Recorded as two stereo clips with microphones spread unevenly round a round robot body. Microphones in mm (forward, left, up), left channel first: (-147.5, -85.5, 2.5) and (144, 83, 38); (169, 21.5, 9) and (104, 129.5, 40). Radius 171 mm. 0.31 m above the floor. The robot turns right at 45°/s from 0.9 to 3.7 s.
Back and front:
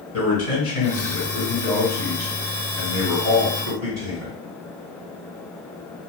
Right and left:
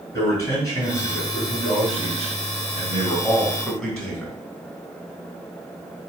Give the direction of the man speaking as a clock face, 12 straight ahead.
3 o'clock.